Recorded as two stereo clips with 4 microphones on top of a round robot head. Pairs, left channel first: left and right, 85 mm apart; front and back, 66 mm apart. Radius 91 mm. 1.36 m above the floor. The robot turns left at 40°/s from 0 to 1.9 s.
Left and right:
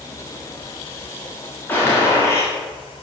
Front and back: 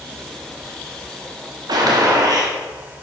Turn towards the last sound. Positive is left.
turn(degrees=155)